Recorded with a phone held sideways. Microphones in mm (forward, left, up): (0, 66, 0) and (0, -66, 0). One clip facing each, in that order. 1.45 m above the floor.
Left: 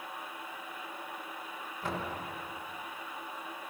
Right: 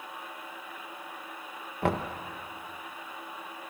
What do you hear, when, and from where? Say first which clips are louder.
1.8 s knocking: right 8 dB; 65° right (ahead or behind), 1.5 m